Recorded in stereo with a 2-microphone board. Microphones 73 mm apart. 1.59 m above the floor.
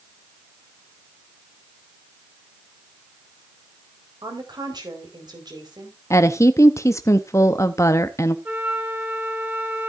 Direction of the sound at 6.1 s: 45° left (ahead or behind).